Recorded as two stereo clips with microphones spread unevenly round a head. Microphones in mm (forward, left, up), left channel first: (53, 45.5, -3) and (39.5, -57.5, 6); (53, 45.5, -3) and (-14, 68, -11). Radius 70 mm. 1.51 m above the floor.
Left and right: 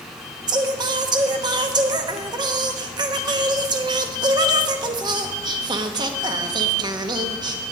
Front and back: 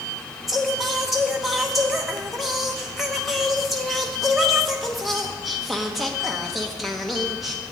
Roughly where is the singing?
Right.